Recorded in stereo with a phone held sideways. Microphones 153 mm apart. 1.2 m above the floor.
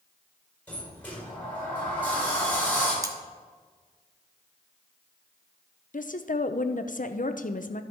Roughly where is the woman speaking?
Left.